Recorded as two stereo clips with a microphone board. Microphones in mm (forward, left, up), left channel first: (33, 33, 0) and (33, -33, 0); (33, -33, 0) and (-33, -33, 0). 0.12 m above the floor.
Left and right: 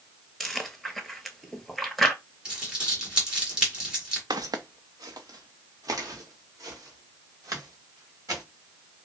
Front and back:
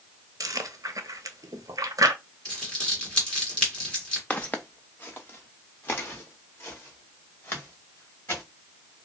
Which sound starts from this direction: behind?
Chewing, at 0.4 s.